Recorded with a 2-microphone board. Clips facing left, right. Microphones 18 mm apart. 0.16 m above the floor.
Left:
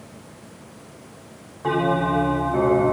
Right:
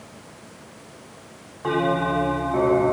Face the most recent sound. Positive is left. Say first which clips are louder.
# left 1 dB
turn(degrees=-15)  # may be behind; listen again after turning